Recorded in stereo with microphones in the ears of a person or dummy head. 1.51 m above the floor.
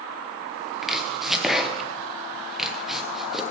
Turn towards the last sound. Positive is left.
turn(degrees=0)  # may be behind; listen again after turning